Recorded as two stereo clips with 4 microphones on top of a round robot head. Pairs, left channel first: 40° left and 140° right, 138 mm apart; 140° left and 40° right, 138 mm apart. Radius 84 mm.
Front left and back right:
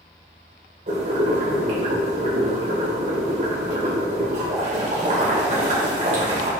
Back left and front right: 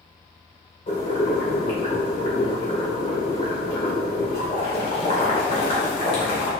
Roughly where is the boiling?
Behind.